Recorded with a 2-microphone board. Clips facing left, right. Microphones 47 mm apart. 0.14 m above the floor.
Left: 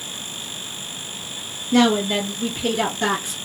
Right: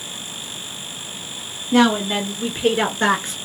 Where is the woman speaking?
20° right (ahead or behind), 1.2 m; by 3.3 s 45° right (ahead or behind), 1.7 m.